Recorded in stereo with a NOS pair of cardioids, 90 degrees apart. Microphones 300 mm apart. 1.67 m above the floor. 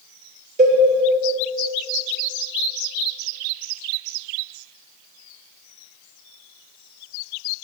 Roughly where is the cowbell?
Ahead right.